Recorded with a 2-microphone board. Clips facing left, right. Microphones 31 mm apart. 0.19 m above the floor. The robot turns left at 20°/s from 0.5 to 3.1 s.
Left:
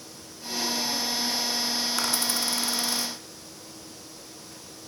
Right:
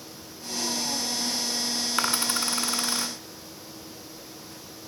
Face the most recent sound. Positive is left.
turn(degrees=-50)  # may be behind; listen again after turning